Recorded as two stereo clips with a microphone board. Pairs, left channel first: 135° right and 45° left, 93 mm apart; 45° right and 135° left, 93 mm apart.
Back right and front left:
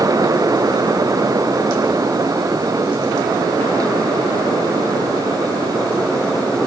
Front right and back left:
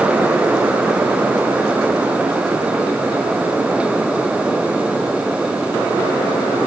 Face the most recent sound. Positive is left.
No sound to turn to.